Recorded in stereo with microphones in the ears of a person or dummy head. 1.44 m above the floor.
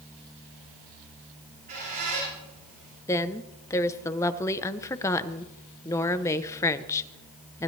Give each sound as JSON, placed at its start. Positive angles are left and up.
{"t": 1.4, "sound": "a squeak", "side_deg": -45, "distance_m": 8.5}
{"t": 3.1, "sound": "a woman speaking", "side_deg": 20, "distance_m": 0.8}